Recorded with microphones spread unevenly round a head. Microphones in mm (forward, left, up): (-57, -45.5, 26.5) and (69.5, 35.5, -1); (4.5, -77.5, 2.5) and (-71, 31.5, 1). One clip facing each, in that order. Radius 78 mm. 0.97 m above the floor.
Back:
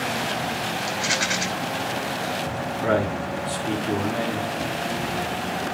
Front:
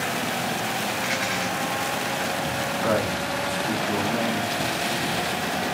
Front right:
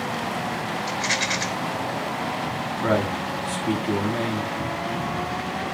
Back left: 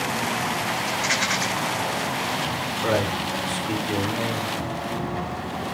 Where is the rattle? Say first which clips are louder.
Even, back left 1 dB; 110° right, 3 m.